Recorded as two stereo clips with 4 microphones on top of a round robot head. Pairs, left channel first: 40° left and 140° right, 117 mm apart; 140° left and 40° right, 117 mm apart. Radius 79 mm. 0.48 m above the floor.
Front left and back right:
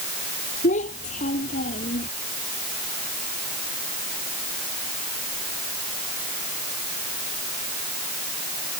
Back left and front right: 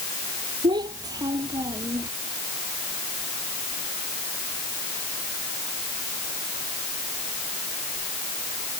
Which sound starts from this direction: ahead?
A child speaking, at 0.6 s.